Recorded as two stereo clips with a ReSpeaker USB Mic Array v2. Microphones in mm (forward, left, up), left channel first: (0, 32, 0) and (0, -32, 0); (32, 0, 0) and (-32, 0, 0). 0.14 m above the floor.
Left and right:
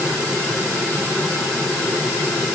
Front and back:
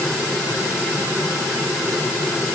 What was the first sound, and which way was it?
Only background noise.